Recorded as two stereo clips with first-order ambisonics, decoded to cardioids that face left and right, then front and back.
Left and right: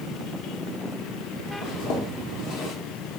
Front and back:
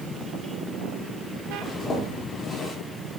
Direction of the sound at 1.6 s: 70° left.